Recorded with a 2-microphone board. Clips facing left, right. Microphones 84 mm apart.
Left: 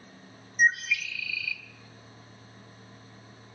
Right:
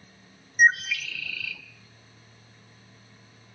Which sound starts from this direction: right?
A bird, at 0.6 s.